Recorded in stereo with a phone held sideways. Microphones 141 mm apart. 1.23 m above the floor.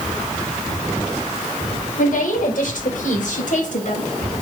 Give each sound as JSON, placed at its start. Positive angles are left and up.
{"t": 2.0, "sound": "a woman speaking", "side_deg": 80, "distance_m": 5.0}